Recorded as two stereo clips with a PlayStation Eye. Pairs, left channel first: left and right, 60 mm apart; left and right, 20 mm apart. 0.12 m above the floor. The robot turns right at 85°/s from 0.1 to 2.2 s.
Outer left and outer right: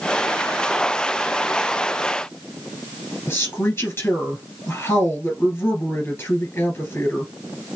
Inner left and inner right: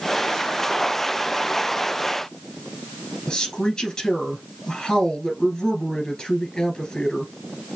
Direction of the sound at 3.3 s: 35° left (ahead or behind).